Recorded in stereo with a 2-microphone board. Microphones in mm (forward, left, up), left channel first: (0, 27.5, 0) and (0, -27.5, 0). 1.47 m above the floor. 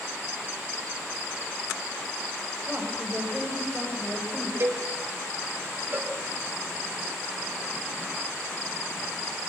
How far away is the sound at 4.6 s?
About 4.5 m.